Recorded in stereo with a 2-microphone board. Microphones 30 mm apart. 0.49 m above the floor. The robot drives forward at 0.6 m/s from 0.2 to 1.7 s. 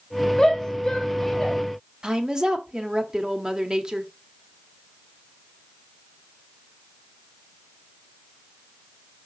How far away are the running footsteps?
No running footsteps in this recording.